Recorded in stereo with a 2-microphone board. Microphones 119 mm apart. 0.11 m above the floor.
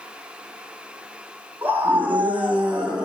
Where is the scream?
15° right (ahead or behind), 6.5 m; by 3.0 s 10° right (ahead or behind), 7 m.